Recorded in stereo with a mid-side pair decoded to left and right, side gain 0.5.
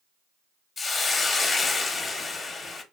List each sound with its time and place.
0.8 s a hiss: 30° left, 0.6 m